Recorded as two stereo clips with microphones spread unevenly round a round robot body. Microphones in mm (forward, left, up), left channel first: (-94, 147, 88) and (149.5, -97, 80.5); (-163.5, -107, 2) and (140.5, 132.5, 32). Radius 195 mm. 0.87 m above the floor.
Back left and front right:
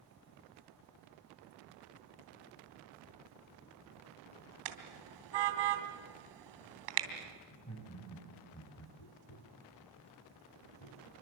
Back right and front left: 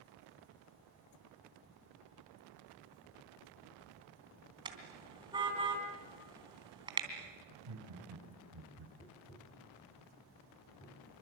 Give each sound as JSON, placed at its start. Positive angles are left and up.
{"t": 4.7, "sound": "a car horn", "azimuth_deg": -40, "distance_m": 3.0}
{"t": 7.5, "sound": "laughter", "azimuth_deg": 70, "distance_m": 9.0}
{"t": 9.0, "sound": "tapping", "azimuth_deg": 140, "distance_m": 3.0}